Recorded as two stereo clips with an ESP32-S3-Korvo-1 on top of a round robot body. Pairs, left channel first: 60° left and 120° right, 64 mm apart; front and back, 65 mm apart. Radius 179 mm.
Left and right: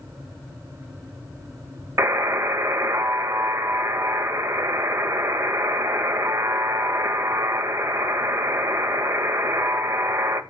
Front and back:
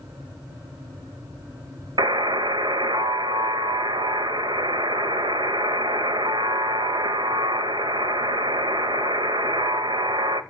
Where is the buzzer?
170° right, 1.2 m.